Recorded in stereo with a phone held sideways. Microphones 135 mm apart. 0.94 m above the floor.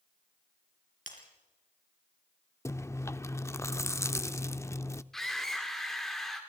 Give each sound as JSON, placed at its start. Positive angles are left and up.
{"t": 1.1, "sound": "breaking glass", "side_deg": 85, "distance_m": 4.5}
{"t": 2.6, "sound": "chewing", "side_deg": 20, "distance_m": 0.5}
{"t": 5.1, "sound": "a scream", "side_deg": 5, "distance_m": 2.5}